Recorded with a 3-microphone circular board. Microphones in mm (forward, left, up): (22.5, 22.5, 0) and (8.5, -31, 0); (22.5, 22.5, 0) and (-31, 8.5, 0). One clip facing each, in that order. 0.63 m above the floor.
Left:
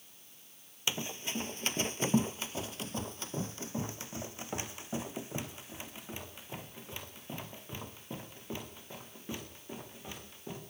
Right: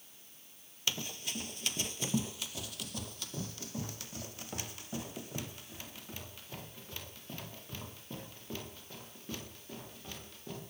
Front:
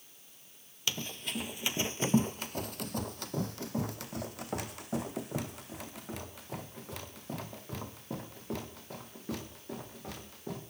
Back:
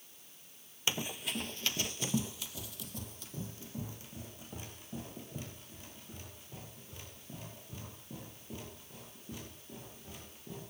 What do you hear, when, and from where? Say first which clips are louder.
0.9 s running footsteps: left 2 dB, back 1 dB; 135° left, 0.8 m; by 10.6 s 5° left, 5.5 m